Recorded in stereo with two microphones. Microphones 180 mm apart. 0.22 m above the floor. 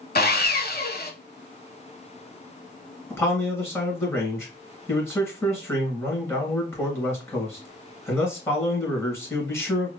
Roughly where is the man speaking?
Centre.